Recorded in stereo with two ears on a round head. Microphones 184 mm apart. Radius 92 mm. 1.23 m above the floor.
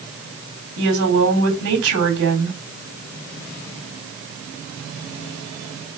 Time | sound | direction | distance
0.8 | a woman speaking | 75° right (ahead or behind) | 4 m